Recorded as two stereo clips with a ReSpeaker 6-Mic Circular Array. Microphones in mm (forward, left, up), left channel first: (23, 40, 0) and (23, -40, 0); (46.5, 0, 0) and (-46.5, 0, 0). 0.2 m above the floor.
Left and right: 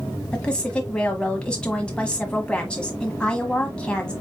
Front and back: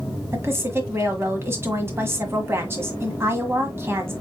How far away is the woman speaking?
About 1.3 m.